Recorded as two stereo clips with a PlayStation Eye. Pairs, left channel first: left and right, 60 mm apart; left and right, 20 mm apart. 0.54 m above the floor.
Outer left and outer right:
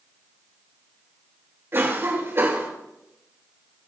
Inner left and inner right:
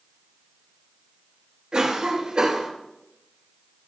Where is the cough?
45° right (ahead or behind), 2 m.